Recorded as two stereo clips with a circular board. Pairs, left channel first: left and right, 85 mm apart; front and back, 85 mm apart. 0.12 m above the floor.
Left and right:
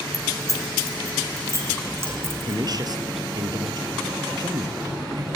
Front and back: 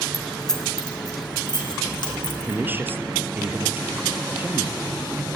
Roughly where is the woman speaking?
Behind right.